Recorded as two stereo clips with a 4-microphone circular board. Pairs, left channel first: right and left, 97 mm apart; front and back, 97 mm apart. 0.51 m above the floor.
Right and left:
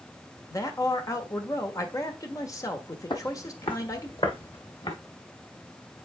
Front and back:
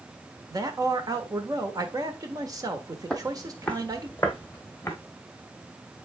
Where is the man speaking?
140° right, 1.2 m.